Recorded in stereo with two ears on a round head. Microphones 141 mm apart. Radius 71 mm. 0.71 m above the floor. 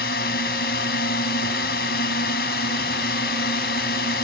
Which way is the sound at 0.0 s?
70° left (ahead or behind).